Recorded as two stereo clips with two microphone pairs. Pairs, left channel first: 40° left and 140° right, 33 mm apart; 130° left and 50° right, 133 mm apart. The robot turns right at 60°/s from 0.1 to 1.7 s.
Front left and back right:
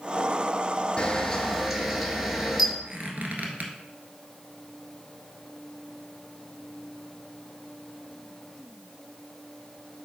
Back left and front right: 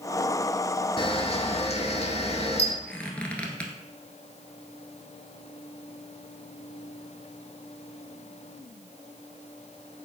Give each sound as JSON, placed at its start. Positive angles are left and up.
{"t": 1.0, "sound": "a camera shutter", "azimuth_deg": 95, "distance_m": 0.9}
{"t": 2.9, "sound": "a squeak", "azimuth_deg": -155, "distance_m": 1.1}